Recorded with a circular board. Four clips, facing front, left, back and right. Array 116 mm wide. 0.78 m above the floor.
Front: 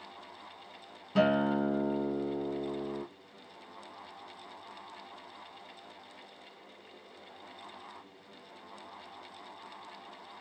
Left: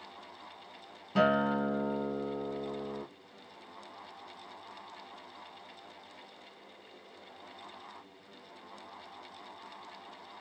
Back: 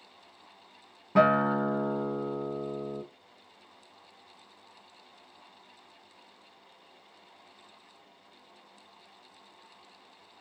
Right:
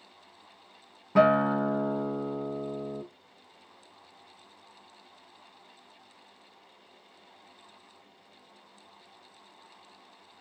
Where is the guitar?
140° right, 0.5 m.